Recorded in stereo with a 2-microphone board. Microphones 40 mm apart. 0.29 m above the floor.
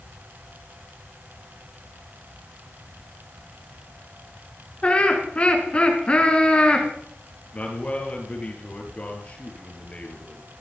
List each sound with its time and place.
4.8 s laughter: 25° left (ahead or behind), 4 m
7.5 s a man speaking: 30° left (ahead or behind), 4.5 m